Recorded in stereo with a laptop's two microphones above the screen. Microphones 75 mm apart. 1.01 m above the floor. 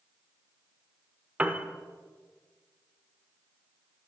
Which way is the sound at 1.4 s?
20° right (ahead or behind).